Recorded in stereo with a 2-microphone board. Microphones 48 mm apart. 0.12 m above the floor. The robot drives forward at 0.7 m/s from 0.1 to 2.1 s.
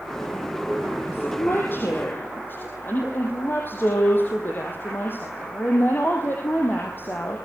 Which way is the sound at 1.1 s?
50° left (ahead or behind).